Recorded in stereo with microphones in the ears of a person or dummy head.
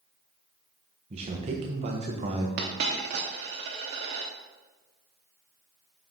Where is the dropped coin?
35° right (ahead or behind), 0.8 m.